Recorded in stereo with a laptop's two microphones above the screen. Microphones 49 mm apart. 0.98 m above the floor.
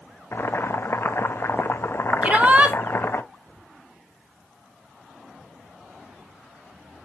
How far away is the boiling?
About 0.6 m.